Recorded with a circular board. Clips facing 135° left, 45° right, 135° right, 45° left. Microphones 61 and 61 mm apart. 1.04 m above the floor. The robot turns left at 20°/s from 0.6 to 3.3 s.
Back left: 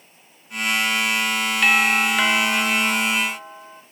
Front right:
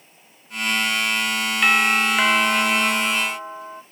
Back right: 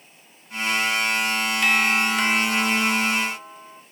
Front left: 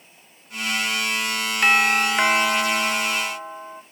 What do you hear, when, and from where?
1.6 s a doorbell: 40° left, 1.0 m; by 3.8 s 5° left, 1.0 m